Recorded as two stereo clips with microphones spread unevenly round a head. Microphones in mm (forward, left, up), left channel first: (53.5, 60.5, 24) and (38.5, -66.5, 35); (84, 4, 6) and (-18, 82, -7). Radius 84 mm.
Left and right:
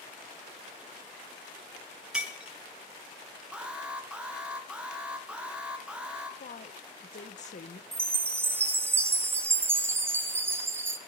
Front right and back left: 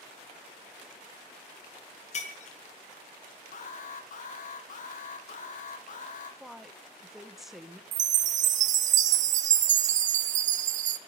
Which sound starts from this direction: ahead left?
A woman speaking, at 6.4 s.